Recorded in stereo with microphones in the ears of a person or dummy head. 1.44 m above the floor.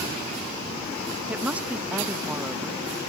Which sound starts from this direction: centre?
A woman speaking, at 1.3 s.